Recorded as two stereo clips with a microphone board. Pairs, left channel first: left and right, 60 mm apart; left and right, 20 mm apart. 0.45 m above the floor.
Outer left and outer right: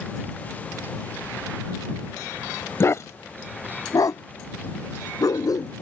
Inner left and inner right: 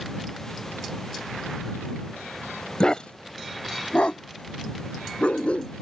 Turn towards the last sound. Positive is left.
turn(degrees=80)